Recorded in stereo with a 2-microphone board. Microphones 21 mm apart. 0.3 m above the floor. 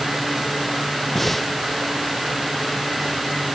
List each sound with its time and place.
1.1 s breathing: 15° left (ahead or behind)